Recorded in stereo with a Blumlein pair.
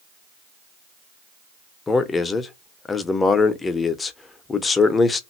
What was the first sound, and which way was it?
A man speaking, 15° left.